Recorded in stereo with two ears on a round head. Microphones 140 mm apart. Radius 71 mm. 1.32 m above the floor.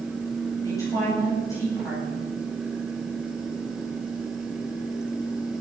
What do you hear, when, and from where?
0.6 s a woman speaking: 20° left (ahead or behind), 9.5 m